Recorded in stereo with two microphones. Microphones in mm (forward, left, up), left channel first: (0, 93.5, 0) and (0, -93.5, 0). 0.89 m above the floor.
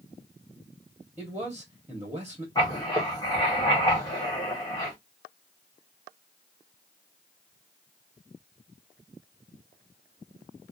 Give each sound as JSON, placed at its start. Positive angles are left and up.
{"t": 1.2, "sound": "a man speaking", "side_deg": -10, "distance_m": 1.0}
{"t": 2.5, "sound": "writing", "side_deg": 20, "distance_m": 1.3}